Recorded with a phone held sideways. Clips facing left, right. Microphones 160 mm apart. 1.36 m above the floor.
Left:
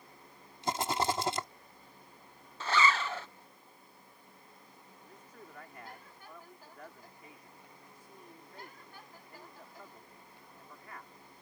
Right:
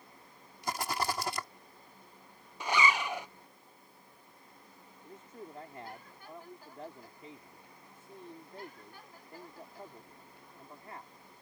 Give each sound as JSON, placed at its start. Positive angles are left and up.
{"t": 0.6, "sound": "a rattle", "side_deg": 25}
{"t": 2.6, "sound": "a zipper", "side_deg": -15}
{"t": 5.0, "sound": "a man speaking", "side_deg": -30}